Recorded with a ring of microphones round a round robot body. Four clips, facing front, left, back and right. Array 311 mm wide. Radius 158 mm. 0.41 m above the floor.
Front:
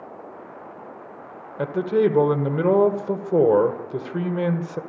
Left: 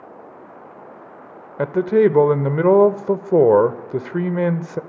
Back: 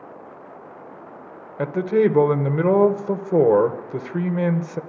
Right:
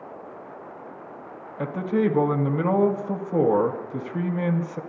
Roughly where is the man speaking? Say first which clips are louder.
Left 8 dB, back 1 dB; left.